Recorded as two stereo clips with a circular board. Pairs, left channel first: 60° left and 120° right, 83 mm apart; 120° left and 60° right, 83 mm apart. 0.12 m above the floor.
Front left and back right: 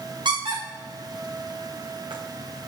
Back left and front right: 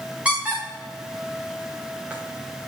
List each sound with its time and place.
0.2 s a squeak: 135° right, 4 m